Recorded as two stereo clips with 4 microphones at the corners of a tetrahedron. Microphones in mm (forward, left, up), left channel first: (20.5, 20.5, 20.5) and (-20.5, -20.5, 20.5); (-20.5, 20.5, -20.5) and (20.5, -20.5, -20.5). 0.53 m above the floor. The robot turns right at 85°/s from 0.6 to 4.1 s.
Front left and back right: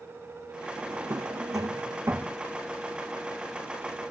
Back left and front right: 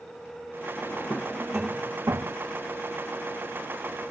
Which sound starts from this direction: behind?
A drawer, at 0.8 s.